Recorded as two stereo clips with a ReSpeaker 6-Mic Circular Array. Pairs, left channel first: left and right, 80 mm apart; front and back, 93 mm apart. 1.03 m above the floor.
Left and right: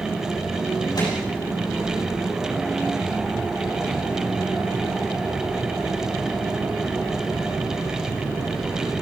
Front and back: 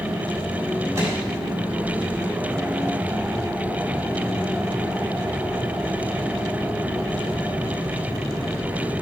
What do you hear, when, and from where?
0.9 s a microwave: 120° left, 6 m